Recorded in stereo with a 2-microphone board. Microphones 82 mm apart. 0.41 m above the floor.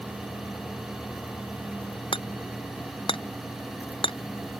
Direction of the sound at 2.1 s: 75° left (ahead or behind).